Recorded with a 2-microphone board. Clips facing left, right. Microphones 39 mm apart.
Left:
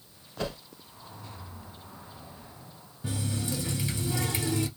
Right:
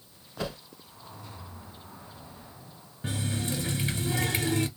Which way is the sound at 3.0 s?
50° right (ahead or behind).